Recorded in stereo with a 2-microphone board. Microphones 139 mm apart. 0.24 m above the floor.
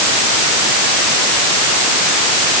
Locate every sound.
Only background noise.